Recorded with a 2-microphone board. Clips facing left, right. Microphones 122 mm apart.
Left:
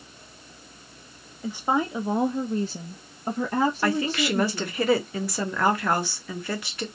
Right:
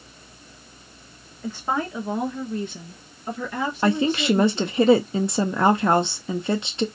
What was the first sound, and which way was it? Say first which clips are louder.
A woman speaking: left 1 dB; 10° left (ahead or behind).